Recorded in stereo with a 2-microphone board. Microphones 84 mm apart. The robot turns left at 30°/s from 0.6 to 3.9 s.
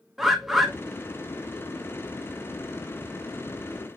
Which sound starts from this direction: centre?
A bird, at 0.2 s.